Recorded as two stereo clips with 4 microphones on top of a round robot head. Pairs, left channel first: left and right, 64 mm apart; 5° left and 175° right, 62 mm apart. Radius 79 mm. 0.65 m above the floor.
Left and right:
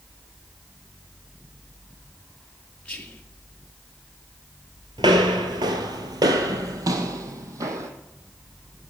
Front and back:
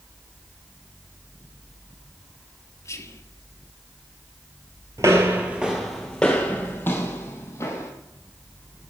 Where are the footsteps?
120° right, 0.9 m; by 7.9 s 55° right, 1.7 m.